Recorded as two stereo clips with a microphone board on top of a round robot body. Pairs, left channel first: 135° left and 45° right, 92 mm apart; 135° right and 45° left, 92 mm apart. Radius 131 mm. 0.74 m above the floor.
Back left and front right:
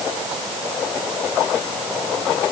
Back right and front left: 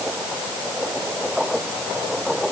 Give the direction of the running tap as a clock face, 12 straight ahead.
No running tap in this recording.